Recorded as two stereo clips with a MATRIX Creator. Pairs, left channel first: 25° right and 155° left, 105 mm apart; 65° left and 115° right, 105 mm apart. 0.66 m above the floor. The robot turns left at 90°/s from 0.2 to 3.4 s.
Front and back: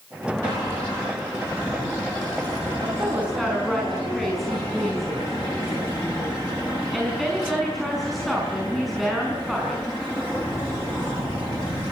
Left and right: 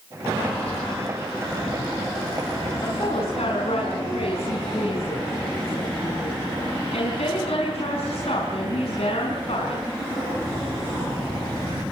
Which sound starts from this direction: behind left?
A woman speaking, at 2.8 s.